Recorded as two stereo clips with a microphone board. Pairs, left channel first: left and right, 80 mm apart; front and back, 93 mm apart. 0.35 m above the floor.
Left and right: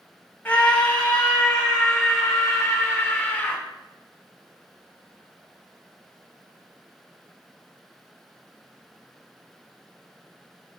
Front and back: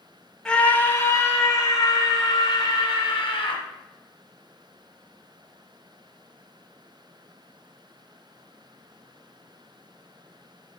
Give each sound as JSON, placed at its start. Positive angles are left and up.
{"t": 0.5, "sound": "a scream", "azimuth_deg": 65, "distance_m": 0.8}